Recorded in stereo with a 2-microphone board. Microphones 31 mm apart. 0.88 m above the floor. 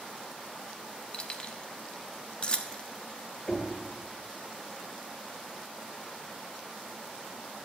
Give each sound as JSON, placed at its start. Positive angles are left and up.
{"t": 1.1, "sound": "keys jangling", "side_deg": 35, "distance_m": 1.0}
{"t": 3.5, "sound": "knocking", "side_deg": 25, "distance_m": 2.5}